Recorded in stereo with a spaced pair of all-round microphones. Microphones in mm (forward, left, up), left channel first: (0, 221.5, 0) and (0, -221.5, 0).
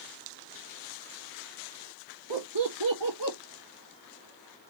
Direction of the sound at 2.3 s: 75° right (ahead or behind).